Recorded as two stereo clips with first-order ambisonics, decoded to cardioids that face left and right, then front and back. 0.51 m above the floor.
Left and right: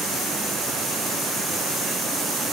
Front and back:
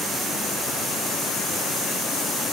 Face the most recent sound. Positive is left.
No sound to turn to.